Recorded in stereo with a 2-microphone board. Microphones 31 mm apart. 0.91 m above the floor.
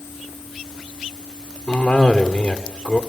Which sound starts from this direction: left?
A cough, at 1.7 s.